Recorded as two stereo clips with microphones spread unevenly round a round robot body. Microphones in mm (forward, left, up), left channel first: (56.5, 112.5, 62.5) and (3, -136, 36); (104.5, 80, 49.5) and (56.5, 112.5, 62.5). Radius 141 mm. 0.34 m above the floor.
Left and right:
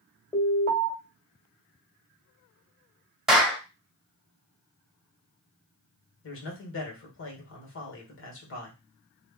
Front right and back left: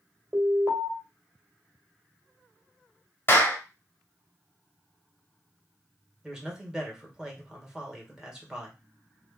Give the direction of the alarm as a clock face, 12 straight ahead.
7 o'clock.